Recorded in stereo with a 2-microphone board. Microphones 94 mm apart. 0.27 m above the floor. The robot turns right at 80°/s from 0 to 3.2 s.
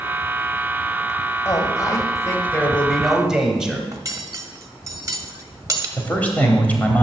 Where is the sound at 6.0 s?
15° left (ahead or behind), 1.1 m.